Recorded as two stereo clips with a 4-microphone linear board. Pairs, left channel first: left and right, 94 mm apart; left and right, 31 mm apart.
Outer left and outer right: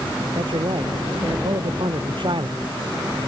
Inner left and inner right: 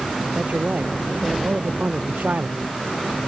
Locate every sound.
0.3 s a man speaking: 60° right (ahead or behind)